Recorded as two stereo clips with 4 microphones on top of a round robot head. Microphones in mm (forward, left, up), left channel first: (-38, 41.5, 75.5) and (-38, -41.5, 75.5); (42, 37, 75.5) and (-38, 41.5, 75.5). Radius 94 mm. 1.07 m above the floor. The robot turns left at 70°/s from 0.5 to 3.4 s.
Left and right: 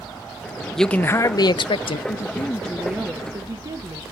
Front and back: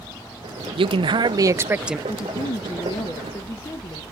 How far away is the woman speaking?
About 1.0 m.